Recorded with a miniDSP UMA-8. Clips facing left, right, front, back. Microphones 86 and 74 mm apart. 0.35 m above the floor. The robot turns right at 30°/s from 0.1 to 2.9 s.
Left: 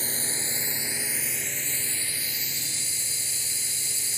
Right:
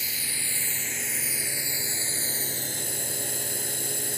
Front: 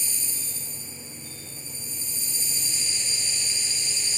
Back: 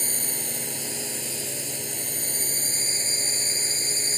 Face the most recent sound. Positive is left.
turn(degrees=-130)